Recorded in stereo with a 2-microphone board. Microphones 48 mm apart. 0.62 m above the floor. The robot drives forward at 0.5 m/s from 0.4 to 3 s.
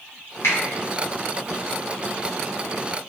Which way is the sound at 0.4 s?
70° left (ahead or behind).